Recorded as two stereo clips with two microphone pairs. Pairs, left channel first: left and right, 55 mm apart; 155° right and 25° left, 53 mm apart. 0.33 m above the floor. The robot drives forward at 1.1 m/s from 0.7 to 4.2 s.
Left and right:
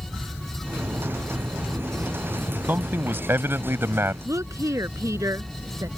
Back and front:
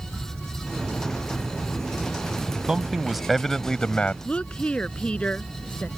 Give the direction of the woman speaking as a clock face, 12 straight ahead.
3 o'clock.